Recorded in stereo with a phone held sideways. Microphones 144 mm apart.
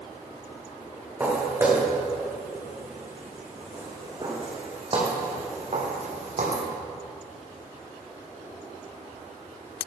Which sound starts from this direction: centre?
Footsteps, at 1.2 s.